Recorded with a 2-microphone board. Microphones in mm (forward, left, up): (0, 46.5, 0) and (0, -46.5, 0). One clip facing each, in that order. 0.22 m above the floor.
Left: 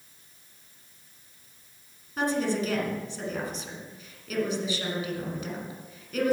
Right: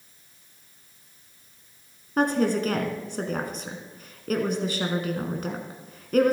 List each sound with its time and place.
2.2 s a woman speaking: 55° right (ahead or behind), 2 m